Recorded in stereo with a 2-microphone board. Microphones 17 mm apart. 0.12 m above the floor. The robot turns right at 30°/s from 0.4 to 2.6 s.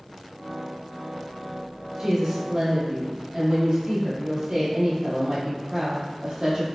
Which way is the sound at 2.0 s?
40° right (ahead or behind).